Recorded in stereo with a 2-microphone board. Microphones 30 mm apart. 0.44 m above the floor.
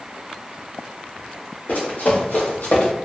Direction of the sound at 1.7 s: 75° left (ahead or behind).